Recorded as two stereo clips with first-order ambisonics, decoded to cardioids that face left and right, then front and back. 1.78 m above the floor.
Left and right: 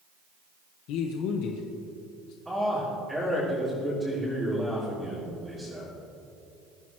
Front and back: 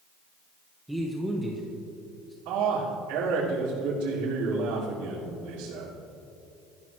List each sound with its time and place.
0.9 s a man speaking: 95° left, 1.3 m
2.5 s a man speaking: 175° right, 3.5 m